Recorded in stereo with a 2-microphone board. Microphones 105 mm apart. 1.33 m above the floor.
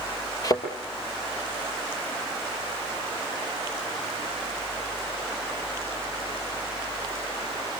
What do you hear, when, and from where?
0.4 s a thud: 35° left (ahead or behind), 5 m